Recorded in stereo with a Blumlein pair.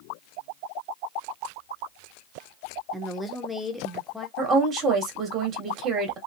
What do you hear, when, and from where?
2.9 s a woman speaking: 5° left, 1.2 m
4.4 s a woman speaking: 25° right, 1.8 m